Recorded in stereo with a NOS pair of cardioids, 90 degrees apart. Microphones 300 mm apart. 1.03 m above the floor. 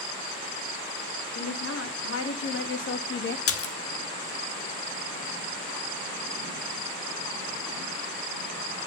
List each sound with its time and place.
1.4 s a woman speaking: 50° left, 3 m; by 3.4 s 40° left, 1.7 m
3.5 s a splash: 50° left, 1.2 m